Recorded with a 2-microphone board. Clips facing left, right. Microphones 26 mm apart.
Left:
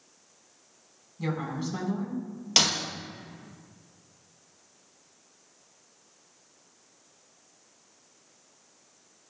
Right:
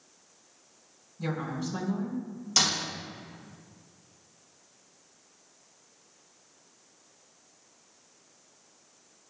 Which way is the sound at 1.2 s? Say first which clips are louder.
Left 1 dB; 30° left (ahead or behind).